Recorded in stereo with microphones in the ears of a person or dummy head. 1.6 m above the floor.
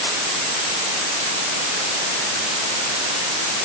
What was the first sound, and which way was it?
Only background noise.